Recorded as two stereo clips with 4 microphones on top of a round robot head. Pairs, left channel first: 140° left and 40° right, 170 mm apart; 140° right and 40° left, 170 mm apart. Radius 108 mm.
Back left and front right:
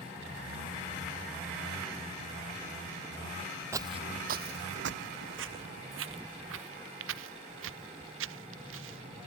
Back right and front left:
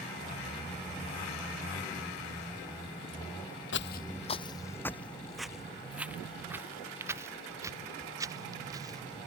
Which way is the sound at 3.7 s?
115° right.